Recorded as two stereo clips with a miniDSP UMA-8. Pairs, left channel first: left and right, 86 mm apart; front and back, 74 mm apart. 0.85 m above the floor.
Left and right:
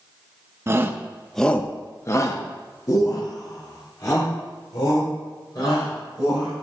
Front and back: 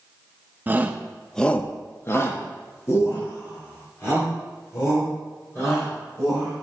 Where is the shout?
130° right, 0.7 m; by 6.5 s 45° left, 4 m.